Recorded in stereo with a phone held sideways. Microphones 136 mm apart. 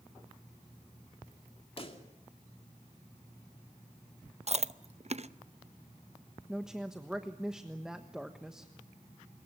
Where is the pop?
45° left (ahead or behind), 2.5 m.